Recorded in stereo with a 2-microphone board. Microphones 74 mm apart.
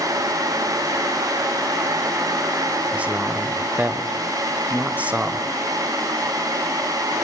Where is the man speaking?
20° right (ahead or behind), 1.2 m.